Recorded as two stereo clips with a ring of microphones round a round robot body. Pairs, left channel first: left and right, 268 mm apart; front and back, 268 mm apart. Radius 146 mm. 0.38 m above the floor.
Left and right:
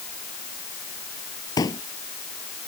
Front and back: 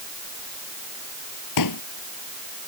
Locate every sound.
1.6 s a pop: 15° left